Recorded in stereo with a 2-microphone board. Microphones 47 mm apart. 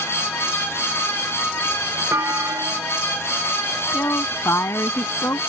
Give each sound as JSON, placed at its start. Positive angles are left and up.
{"t": 2.1, "sound": "a clunk", "side_deg": -90}
{"t": 3.8, "sound": "a woman speaking", "side_deg": 70}